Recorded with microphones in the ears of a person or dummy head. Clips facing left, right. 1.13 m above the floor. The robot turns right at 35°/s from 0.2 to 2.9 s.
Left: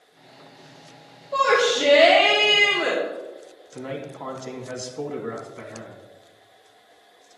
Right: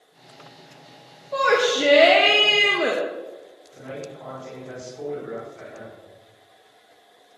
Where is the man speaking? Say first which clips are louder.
Left 3 dB; 70° left (ahead or behind), 2.0 m.